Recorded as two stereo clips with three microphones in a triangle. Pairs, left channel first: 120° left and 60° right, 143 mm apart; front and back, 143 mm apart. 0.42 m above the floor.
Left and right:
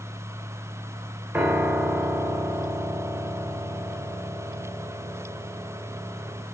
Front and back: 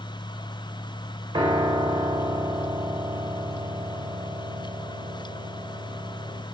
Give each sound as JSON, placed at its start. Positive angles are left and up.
{"t": 1.3, "sound": "a piano", "azimuth_deg": -130, "distance_m": 1.0}